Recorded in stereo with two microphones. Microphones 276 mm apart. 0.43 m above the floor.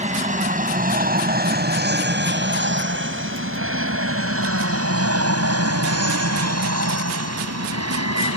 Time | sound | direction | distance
0.0 | an aircraft | 25° right (ahead or behind) | ?